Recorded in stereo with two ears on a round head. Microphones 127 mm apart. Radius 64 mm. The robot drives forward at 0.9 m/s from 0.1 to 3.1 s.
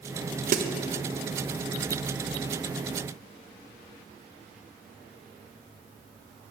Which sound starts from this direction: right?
A snare drum, at 0.5 s.